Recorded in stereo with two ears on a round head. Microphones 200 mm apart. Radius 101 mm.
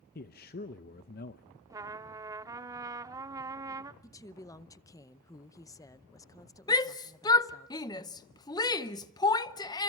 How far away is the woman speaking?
About 0.7 m.